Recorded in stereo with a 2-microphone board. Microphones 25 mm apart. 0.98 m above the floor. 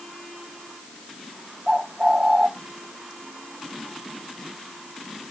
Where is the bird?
15° right (ahead or behind), 1.4 m.